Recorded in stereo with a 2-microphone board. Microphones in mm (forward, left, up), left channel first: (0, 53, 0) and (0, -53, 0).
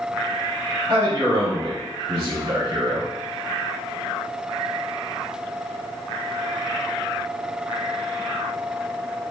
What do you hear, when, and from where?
0.9 s a man speaking: 35° right (ahead or behind), 1.2 m